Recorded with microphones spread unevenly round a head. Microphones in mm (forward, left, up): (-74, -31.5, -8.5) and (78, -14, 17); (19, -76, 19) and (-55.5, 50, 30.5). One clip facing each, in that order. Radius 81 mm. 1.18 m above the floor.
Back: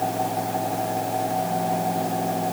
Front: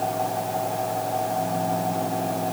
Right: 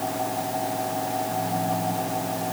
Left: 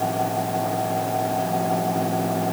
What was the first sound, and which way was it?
Only background noise.